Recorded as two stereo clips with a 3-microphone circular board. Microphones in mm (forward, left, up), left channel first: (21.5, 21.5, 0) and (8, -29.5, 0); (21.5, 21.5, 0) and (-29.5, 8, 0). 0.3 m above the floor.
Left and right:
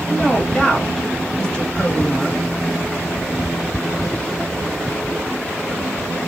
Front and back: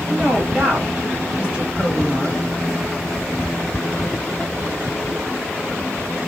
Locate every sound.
0.1 s a woman speaking: 135° left, 1.9 m